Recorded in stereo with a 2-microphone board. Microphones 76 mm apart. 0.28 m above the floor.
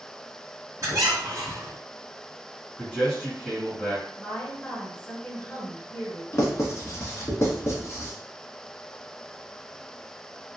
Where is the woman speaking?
15° left (ahead or behind), 1.5 m.